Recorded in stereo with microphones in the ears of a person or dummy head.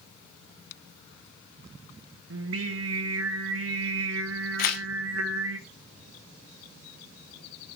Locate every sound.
2.3 s singing: 85° right, 1.0 m
4.6 s tearing paper: 50° left (ahead or behind), 1.2 m